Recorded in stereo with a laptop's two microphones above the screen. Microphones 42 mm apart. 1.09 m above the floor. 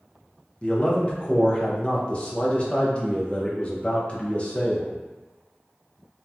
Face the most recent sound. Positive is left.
turn(degrees=30)  # may be behind; listen again after turning